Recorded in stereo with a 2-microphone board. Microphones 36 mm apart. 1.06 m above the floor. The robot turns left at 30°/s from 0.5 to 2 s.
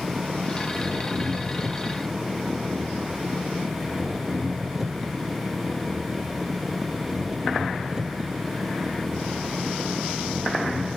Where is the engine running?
120° right; by 11.0 s 165° right.